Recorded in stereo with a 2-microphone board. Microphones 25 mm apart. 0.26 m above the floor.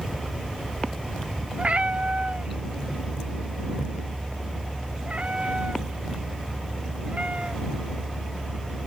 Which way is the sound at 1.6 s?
60° right (ahead or behind).